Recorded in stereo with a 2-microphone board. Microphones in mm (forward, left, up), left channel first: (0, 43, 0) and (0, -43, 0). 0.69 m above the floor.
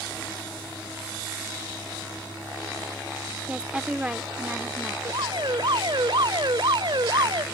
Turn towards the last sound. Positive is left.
turn(degrees=-65)  # may be behind; listen again after turning